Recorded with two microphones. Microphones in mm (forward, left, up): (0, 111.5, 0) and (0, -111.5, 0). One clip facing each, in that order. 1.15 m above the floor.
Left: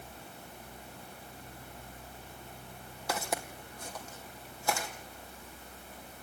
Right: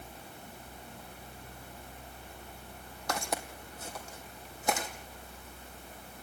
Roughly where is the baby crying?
I don't hear a baby crying.